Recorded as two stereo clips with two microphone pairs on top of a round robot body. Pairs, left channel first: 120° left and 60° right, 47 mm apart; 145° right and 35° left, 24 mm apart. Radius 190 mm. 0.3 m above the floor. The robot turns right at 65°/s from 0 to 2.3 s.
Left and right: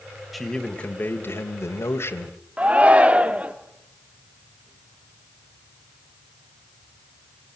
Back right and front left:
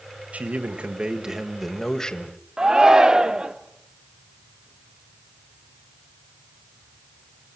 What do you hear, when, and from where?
0.3 s a man speaking: 30° left, 2 m; by 2.4 s 160° left, 2 m
2.6 s a shout: straight ahead, 1.8 m